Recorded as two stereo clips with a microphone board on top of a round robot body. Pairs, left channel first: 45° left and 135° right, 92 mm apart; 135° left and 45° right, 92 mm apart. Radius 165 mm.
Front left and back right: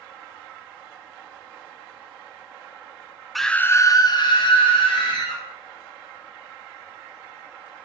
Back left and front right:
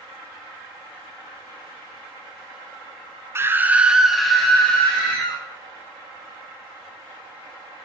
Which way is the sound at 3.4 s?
45° right.